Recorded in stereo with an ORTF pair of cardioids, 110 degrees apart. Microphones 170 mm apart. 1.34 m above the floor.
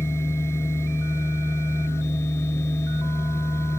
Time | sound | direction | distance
0.0 | a machine running | 15° left | ?